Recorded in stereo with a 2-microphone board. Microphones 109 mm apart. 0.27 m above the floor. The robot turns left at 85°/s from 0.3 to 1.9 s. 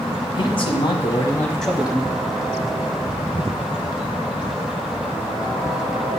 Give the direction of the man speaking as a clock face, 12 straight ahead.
8 o'clock.